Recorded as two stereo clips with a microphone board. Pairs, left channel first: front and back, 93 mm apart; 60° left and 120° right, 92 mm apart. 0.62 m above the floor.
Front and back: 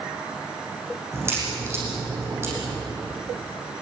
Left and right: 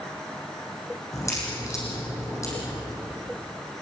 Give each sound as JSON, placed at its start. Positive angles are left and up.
{"t": 1.1, "sound": "a crack", "azimuth_deg": 115, "distance_m": 9.0}